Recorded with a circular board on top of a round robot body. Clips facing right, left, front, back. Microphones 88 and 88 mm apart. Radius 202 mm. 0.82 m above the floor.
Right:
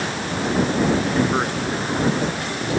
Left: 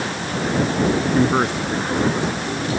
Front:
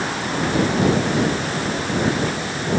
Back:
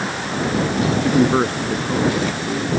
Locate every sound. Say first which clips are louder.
1.0 s a man speaking: left 3 dB, back 5 dB; 165° left